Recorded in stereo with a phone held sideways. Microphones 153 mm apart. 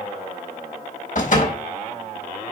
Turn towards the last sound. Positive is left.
turn(degrees=60)  # may be behind; listen again after turning